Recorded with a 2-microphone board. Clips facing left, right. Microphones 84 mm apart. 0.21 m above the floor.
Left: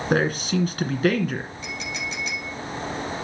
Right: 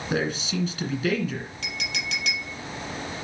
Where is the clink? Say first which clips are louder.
Left 1 dB; 75° right (ahead or behind), 4 m.